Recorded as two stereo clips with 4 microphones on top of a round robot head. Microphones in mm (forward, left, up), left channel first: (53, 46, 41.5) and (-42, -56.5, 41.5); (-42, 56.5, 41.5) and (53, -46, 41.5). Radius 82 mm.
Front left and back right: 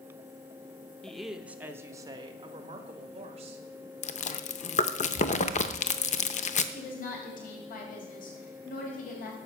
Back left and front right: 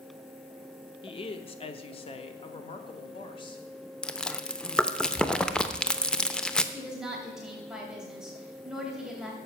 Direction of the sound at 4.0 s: 50° left.